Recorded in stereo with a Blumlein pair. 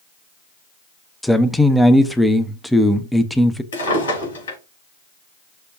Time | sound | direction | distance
1.2 | a man speaking | 5° left | 0.5 m
3.7 | a drawer | 70° left | 3 m